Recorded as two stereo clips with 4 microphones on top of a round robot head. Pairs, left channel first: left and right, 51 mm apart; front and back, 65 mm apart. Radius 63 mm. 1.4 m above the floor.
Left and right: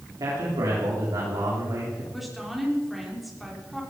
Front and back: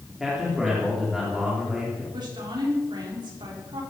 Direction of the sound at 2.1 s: Straight behind.